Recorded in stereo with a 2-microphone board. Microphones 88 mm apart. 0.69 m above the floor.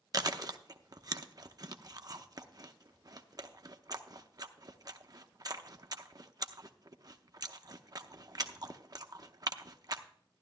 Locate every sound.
0.1 s chewing: 45° right (ahead or behind), 0.6 m